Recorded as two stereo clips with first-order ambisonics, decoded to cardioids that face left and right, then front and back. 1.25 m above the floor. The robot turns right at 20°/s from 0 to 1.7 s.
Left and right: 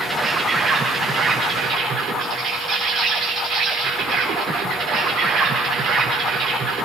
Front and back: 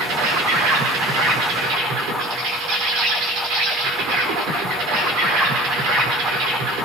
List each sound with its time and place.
0.0 s an insect: 175° right, 5 m; by 6.8 s 145° right, 5 m